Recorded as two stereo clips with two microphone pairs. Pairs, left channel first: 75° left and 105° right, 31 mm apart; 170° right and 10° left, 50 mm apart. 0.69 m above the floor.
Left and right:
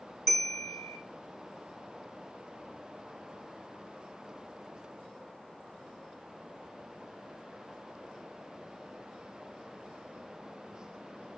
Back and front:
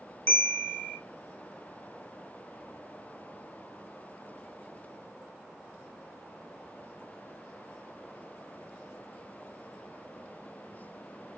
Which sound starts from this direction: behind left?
A bell, at 0.3 s.